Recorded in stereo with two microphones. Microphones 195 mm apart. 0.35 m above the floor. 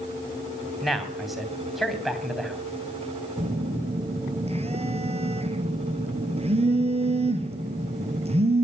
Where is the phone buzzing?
30° right (ahead or behind), 1.4 m.